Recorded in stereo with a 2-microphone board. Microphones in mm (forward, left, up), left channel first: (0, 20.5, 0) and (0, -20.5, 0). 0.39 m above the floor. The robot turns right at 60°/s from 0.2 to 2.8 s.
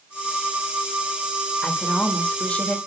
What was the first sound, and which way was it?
A woman speaking, 65° left.